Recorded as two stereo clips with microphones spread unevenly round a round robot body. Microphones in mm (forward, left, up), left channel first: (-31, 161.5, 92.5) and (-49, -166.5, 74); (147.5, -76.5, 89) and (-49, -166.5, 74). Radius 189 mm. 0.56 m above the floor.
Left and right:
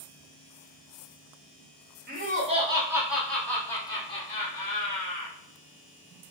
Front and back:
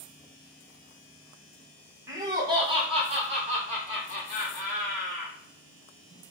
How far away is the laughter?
About 1.2 m.